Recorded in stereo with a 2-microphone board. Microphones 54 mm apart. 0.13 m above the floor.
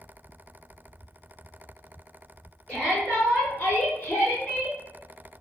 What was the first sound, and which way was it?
A shout, 25° left (ahead or behind).